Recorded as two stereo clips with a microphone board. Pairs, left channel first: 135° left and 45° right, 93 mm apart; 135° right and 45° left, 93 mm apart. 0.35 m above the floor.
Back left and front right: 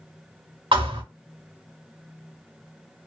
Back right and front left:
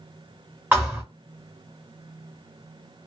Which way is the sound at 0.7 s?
20° right.